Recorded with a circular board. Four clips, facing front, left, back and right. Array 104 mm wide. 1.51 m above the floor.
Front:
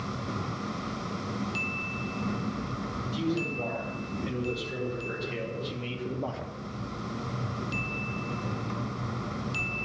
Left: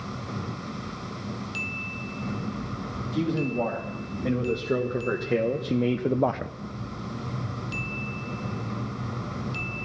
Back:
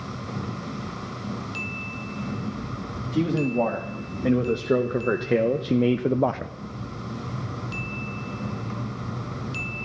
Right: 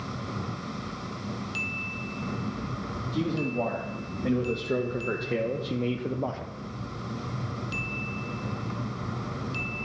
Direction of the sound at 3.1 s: Straight behind.